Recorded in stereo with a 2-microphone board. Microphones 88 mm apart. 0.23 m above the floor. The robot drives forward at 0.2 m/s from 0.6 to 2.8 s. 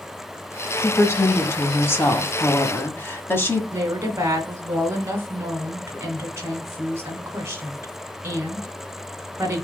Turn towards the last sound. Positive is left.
turn(degrees=-30)  # may be behind; listen again after turning